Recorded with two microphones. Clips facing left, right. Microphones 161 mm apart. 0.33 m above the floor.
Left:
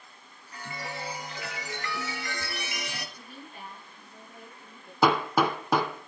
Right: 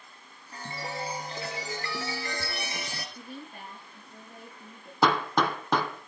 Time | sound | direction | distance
0.5 | a chime | 35° right (ahead or behind) | 3 m
3.1 | a woman speaking | 45° right (ahead or behind) | 8 m
5.0 | hammering | 5° left (ahead or behind) | 2 m